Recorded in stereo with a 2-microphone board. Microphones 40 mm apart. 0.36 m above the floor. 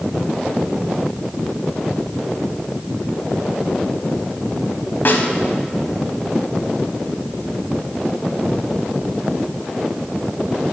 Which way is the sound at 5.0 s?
55° left (ahead or behind).